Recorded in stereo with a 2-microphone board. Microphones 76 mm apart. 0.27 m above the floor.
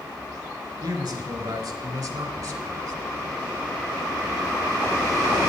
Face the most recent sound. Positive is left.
turn(degrees=-65)  # may be behind; listen again after turning